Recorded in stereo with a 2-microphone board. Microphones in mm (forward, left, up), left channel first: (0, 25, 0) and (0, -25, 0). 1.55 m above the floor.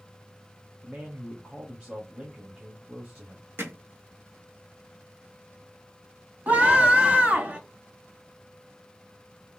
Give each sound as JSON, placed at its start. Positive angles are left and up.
{"t": 0.8, "sound": "a man speaking", "side_deg": -15, "distance_m": 1.1}
{"t": 3.6, "sound": "hammering", "side_deg": -55, "distance_m": 1.5}
{"t": 6.5, "sound": "a scream", "side_deg": -30, "distance_m": 2.5}